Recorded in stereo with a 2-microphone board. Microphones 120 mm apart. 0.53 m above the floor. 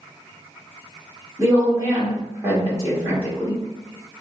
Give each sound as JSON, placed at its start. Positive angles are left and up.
{"t": 1.4, "sound": "a woman speaking", "side_deg": -20, "distance_m": 1.2}